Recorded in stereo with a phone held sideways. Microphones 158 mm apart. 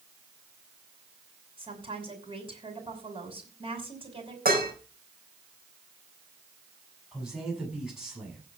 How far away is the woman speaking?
About 5.5 m.